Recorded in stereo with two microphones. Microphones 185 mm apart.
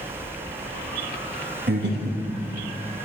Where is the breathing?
65° right (ahead or behind), 1.2 m.